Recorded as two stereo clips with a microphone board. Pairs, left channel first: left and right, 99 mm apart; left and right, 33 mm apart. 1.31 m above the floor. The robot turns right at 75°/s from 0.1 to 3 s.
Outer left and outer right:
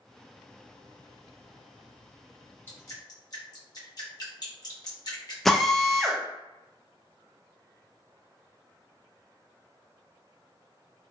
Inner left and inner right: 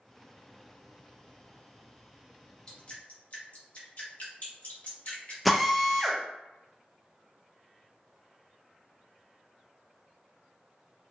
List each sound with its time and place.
2.7 s dripping: 20° left (ahead or behind), 1.0 m; by 5.3 s 40° left (ahead or behind), 1.0 m
5.5 s a drill: 5° left (ahead or behind), 0.6 m